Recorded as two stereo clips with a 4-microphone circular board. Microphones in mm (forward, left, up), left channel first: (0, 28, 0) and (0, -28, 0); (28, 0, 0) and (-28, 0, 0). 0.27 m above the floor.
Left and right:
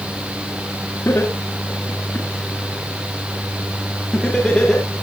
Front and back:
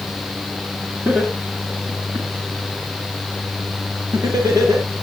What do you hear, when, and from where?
1.1 s laughter: 130° left, 3.5 m; by 4.9 s 175° left, 4.5 m